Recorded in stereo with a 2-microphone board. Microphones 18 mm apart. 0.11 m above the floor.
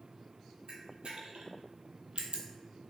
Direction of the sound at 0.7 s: 75° right (ahead or behind).